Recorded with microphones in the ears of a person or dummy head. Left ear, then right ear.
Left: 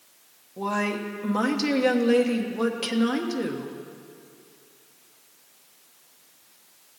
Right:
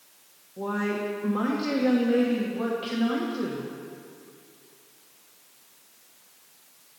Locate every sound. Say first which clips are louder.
0.6 s a woman speaking: left 2 dB; 85° left, 1.1 m